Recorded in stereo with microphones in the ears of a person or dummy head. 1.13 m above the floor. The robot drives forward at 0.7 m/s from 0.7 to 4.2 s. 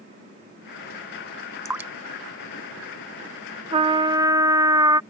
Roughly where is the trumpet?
Right.